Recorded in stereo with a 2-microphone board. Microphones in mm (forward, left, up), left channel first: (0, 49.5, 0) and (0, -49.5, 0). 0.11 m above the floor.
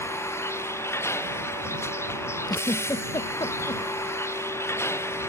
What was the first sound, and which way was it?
A vehicle, 25° left (ahead or behind).